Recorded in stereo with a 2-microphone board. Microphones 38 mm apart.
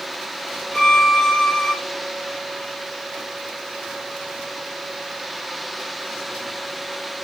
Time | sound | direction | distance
0.7 | a violin | 20° left (ahead or behind) | 3 m